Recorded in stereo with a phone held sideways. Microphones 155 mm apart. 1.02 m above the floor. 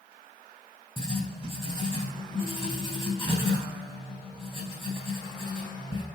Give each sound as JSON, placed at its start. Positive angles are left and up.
{"t": 1.0, "sound": "writing", "side_deg": 30, "distance_m": 3.5}